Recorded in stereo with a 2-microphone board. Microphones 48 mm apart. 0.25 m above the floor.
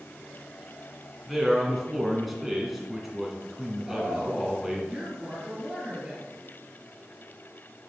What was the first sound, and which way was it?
A man speaking, centre (ahead or behind).